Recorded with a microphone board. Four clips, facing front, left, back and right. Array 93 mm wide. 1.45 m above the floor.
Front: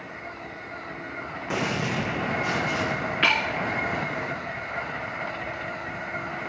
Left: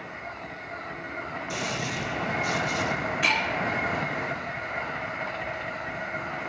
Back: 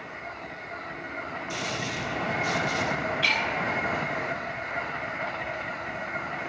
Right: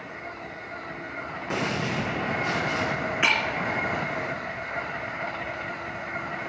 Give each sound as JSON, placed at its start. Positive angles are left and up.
{"t": 1.5, "sound": "a gunshot", "azimuth_deg": -40, "distance_m": 1.3}
{"t": 3.2, "sound": "breaking glass", "azimuth_deg": -35, "distance_m": 2.0}